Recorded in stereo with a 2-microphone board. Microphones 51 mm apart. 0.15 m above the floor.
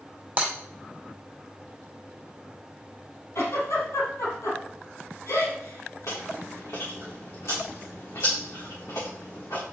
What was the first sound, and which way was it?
Breaking glass, 35° right (ahead or behind).